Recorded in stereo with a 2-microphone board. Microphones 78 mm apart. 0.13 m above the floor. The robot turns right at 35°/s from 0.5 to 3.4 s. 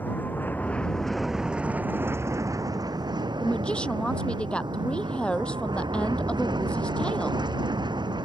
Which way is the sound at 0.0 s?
155° left.